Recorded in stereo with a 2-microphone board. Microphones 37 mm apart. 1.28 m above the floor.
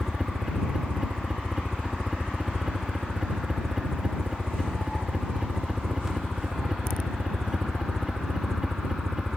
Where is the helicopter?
10° right (ahead or behind).